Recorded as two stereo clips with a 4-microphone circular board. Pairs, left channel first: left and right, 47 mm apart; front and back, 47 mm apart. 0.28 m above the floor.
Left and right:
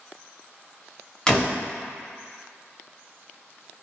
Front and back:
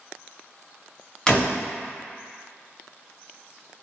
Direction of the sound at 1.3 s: 40° left.